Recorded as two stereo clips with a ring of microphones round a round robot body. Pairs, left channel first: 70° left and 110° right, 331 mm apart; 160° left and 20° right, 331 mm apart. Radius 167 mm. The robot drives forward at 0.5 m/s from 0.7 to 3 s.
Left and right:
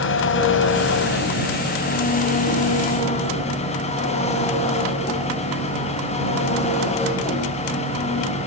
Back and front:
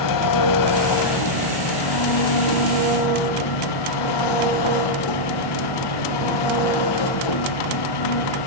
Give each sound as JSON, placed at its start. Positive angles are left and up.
{"t": 0.0, "sound": "an engine running", "azimuth_deg": 125, "distance_m": 3.0}